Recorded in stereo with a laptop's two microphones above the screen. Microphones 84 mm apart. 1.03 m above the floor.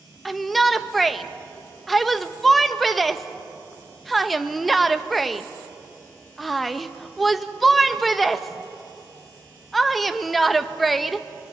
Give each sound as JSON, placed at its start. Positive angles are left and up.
{"t": 0.2, "sound": "a shout", "side_deg": 0, "distance_m": 1.0}